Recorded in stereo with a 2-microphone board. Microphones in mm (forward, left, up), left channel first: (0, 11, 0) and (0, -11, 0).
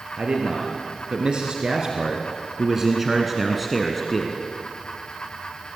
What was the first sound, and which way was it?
A man speaking, 50° right (ahead or behind).